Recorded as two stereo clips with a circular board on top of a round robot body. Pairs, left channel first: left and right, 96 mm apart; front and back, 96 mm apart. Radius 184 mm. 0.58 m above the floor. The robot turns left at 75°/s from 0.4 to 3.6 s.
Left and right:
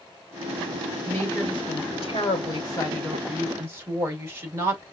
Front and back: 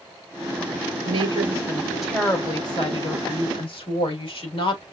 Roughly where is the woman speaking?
Behind.